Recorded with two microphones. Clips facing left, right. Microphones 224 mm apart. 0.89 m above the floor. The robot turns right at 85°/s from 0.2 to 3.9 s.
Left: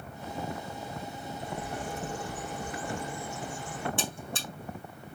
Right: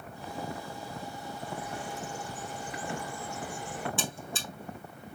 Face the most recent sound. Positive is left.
turn(degrees=70)  # may be behind; listen again after turning